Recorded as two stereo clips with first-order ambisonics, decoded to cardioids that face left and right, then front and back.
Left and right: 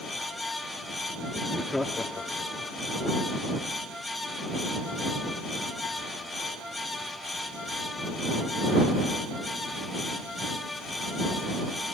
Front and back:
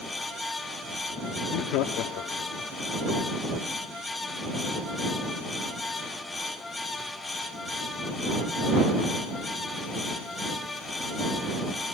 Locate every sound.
1.4 s laughter: 5° right; by 2.7 s 25° left